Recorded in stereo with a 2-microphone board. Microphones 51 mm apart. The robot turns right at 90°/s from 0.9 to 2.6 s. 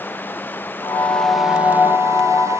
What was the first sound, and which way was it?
Running water, 140° left.